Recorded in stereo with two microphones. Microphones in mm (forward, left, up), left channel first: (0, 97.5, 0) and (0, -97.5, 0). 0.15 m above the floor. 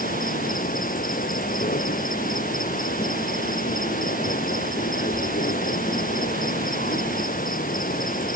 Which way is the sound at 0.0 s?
45° left (ahead or behind).